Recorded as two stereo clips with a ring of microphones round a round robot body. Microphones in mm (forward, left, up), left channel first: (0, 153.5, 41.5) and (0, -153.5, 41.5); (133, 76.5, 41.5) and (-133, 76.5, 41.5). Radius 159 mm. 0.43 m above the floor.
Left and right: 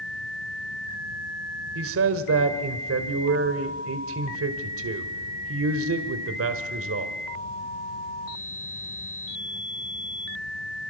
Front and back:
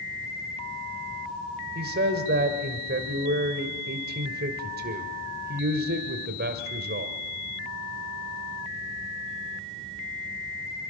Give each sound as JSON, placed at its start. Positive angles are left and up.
{"t": 1.8, "sound": "a man speaking", "azimuth_deg": -130, "distance_m": 1.7}